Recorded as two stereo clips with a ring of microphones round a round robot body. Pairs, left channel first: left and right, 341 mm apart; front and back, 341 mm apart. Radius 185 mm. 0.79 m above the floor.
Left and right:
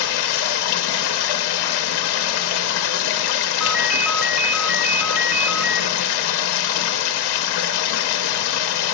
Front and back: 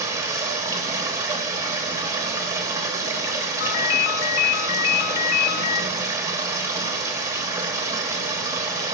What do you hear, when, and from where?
0.0 s running water: 100° left, 0.9 m
3.6 s a ringtone: straight ahead, 0.9 m